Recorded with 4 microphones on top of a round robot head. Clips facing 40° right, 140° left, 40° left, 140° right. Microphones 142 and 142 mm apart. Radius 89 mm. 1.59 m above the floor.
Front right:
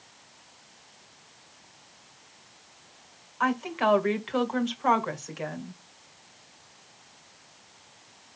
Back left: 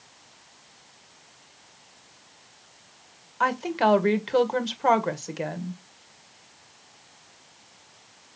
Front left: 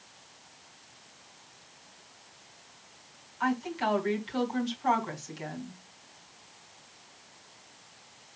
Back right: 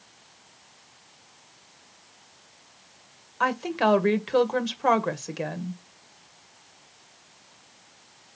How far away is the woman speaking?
About 1.8 m.